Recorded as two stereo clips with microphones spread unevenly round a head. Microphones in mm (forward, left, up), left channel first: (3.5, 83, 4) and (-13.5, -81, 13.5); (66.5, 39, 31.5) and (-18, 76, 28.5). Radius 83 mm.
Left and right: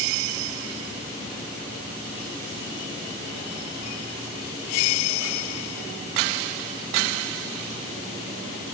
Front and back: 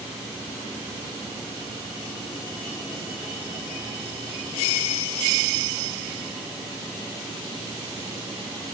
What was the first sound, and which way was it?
Only background noise.